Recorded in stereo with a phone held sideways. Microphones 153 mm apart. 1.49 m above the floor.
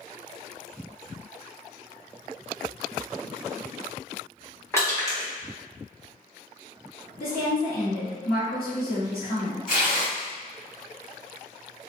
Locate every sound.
4.7 s crushing: 20° left (ahead or behind), 1.0 m
7.2 s a woman speaking: 70° left (ahead or behind), 1.2 m
9.7 s tearing paper: 60° left (ahead or behind), 1.4 m